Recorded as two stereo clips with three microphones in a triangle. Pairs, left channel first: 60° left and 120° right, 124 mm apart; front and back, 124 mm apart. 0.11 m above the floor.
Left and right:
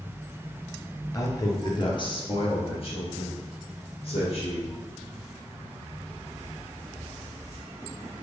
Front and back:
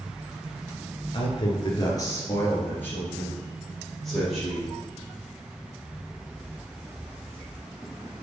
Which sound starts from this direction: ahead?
A man speaking, at 1.1 s.